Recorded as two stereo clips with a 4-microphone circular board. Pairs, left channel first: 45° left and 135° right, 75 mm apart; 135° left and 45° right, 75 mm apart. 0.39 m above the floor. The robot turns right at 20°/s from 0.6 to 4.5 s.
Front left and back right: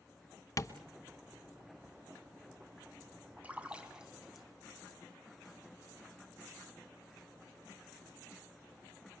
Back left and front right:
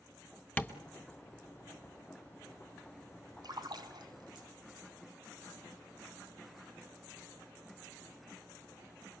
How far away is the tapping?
About 1.3 m.